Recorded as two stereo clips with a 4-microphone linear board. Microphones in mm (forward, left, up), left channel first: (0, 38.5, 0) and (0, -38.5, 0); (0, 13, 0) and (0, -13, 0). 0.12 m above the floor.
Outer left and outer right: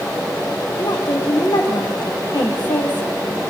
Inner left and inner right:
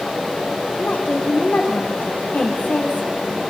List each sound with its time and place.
0.8 s a woman speaking: 80° left, 6 m